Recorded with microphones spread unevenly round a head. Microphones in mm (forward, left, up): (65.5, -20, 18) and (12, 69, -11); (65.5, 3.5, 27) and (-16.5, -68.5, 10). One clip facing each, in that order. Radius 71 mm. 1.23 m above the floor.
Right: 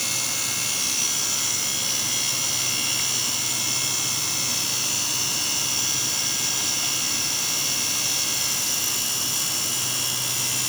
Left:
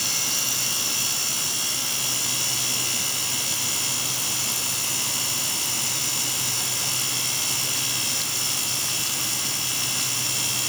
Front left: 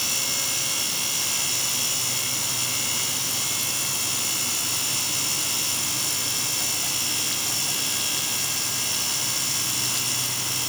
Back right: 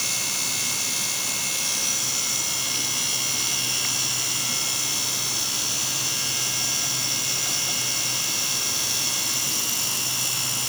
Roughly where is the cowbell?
I don't hear a cowbell.